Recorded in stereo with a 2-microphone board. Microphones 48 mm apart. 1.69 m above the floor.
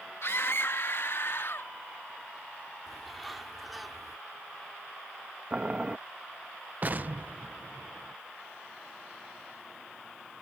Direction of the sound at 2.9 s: Centre (ahead or behind).